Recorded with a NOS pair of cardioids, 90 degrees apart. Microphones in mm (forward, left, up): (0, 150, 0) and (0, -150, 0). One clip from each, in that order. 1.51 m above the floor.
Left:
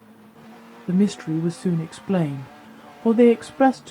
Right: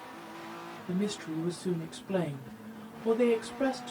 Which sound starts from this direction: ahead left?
A woman speaking, at 0.9 s.